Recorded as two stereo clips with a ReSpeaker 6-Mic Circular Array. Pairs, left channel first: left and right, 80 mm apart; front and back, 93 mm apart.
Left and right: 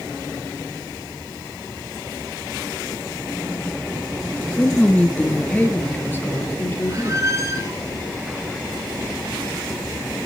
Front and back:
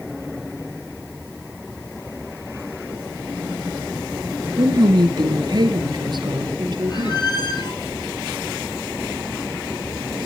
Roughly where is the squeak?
Ahead right.